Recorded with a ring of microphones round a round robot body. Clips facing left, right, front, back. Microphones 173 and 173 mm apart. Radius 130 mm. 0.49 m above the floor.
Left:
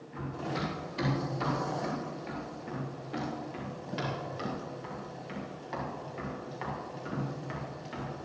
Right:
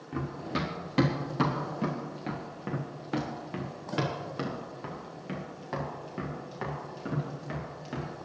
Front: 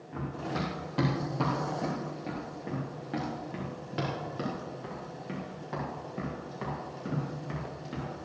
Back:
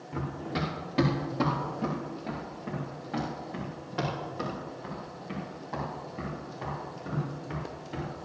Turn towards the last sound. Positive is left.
turn(degrees=-45)